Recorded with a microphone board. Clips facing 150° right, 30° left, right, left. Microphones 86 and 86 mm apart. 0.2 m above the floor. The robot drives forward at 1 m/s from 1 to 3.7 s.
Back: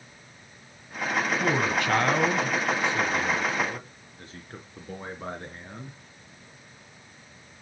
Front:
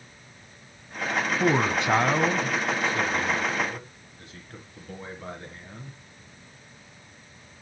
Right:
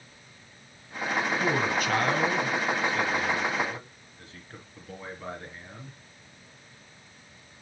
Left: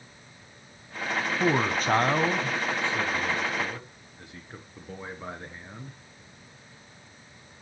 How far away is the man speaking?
About 1.2 m.